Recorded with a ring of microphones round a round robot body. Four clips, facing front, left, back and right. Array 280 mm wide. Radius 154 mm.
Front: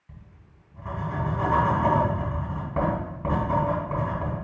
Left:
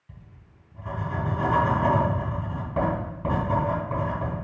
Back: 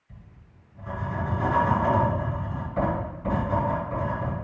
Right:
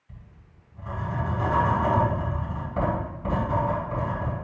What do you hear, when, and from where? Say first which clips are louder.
0.1 s writing: left 1 dB, front 1 dB; 30° left, 3.5 m